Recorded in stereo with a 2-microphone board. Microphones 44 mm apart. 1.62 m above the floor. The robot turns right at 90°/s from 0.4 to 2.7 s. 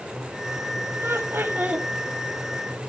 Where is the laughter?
105° right, 2.5 m; by 1.9 s 25° right, 2.5 m.